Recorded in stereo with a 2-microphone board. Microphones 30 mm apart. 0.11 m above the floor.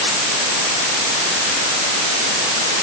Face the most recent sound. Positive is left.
No sound to turn to.